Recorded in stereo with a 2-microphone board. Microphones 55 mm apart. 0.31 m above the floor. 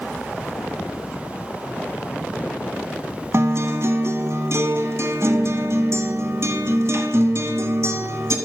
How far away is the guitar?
About 1.0 m.